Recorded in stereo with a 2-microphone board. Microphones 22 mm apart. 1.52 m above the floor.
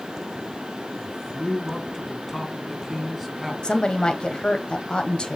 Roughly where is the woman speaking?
Left.